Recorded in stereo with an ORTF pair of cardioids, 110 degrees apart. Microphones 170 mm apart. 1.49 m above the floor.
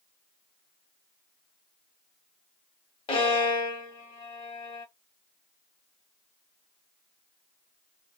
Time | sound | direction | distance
3.1 | a violin | 30° left | 1.1 m